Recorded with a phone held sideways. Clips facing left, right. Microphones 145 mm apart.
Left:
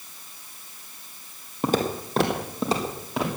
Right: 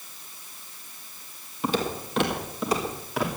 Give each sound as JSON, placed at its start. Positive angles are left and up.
{"t": 1.6, "sound": "footsteps", "side_deg": 45, "distance_m": 2.0}